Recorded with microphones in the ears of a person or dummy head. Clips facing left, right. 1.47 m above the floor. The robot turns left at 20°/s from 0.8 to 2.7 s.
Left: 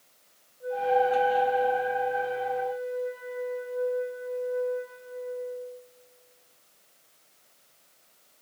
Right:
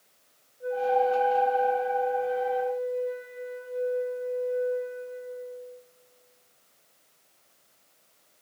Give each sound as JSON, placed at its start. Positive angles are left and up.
{"t": 0.6, "sound": "a flute", "azimuth_deg": -145, "distance_m": 8.5}